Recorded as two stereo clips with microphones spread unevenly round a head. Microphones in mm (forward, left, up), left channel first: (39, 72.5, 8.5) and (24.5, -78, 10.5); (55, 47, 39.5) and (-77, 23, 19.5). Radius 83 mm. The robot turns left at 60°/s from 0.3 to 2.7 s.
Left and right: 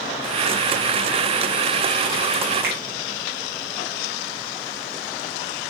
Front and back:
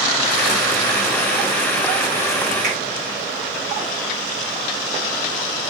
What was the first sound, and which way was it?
A finger snap, 135° right.